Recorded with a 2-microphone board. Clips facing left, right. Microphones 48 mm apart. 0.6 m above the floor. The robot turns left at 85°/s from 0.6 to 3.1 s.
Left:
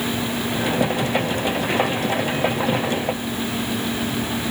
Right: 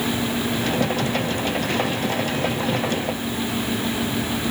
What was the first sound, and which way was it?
Only background noise.